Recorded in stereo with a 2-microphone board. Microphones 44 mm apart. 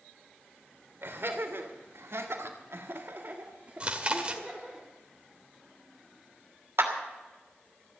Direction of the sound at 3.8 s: 25° right (ahead or behind).